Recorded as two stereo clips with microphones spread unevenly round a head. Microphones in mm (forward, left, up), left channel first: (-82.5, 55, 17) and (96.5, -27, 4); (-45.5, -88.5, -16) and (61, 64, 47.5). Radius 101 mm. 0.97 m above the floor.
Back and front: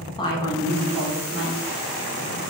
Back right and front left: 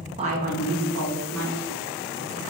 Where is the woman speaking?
120° left, 0.5 m; by 2.4 s 55° left, 1.4 m.